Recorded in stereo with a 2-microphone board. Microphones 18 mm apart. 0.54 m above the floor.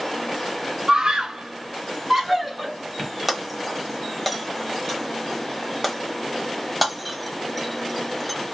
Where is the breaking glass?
5° right (ahead or behind), 1.0 m.